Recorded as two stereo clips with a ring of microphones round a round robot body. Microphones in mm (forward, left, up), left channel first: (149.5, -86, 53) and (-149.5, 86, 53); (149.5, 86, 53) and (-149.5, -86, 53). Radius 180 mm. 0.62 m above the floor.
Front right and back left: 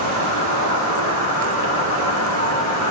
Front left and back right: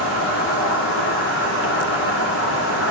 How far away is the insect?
About 3 m.